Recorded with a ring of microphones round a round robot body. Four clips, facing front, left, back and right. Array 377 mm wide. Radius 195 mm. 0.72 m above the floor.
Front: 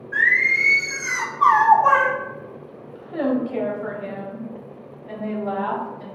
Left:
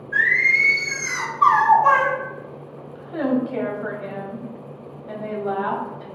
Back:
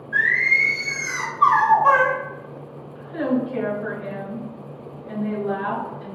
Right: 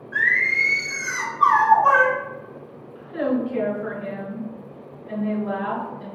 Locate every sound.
0.1 s singing: 10° left, 1.8 m
3.0 s a woman speaking: 40° left, 1.7 m